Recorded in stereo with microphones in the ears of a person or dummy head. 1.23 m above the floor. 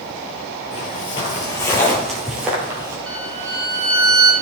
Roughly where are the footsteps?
Left.